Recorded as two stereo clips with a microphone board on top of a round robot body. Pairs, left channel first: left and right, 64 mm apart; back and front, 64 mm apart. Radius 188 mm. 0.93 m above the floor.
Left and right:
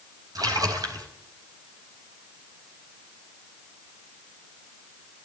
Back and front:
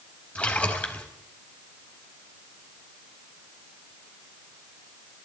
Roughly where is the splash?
Right.